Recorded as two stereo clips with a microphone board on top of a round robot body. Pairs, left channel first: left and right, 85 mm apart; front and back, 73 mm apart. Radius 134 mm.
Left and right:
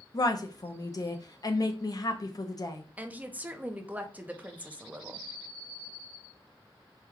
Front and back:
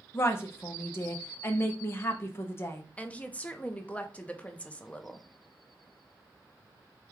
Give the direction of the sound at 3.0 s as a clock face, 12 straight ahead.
1 o'clock.